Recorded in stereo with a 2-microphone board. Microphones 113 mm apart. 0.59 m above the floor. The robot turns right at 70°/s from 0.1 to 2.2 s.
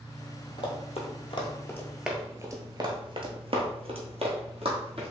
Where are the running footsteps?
45° left (ahead or behind), 1.2 m; by 5.1 s 55° right (ahead or behind), 1.4 m.